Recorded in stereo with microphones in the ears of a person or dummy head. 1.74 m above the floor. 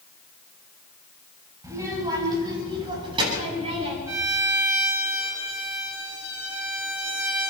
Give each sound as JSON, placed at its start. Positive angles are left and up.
{"t": 1.6, "sound": "a child speaking", "side_deg": -20, "distance_m": 7.0}
{"t": 4.1, "sound": "a violin", "side_deg": -15, "distance_m": 5.0}